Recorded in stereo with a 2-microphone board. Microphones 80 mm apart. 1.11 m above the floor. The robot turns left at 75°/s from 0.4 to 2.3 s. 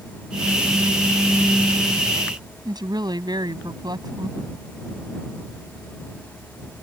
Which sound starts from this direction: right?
A woman speaking, at 2.6 s.